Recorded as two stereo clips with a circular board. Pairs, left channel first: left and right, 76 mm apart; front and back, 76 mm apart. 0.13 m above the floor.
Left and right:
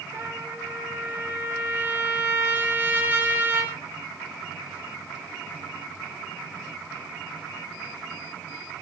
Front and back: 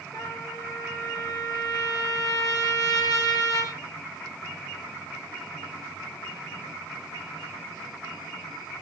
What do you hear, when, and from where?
0.1 s a trumpet: 30° right, 8.5 m